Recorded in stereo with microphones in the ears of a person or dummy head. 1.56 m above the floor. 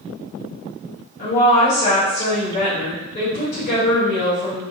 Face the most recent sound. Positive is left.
turn(degrees=50)  # may be behind; listen again after turning